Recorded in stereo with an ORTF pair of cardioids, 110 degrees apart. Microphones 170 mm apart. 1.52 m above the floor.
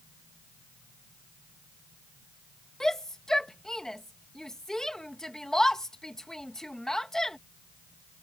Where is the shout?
5° left.